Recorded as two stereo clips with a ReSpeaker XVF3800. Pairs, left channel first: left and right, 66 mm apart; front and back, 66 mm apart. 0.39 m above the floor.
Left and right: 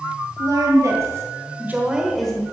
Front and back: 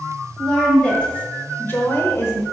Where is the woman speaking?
80° right, 1.9 m; by 2.4 s 20° left, 1.0 m.